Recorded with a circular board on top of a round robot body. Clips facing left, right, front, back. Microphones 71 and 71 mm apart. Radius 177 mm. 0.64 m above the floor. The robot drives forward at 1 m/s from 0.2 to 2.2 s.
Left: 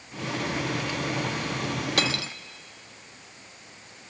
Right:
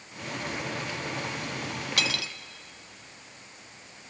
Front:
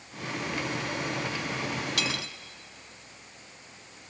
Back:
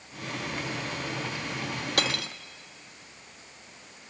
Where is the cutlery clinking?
140° left, 0.8 m; by 2.3 s 145° left, 1.0 m.